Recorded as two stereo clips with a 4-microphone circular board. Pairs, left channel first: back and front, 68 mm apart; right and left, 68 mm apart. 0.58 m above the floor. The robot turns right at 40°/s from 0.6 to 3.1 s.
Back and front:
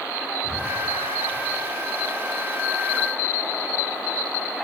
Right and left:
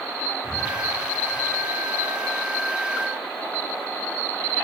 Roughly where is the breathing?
Behind.